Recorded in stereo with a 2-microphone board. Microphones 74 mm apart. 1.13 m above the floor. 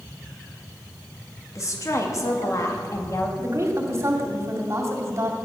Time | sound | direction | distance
1.6 | a woman speaking | 45° left (ahead or behind) | 2 m
3.4 | a woman speaking | 40° right (ahead or behind) | 2.5 m